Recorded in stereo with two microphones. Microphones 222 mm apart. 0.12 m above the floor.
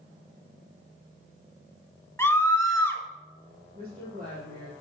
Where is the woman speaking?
40° right (ahead or behind), 5 m.